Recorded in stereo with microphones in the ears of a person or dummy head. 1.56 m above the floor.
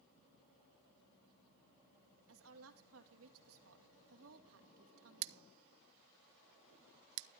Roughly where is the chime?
No chime in this recording.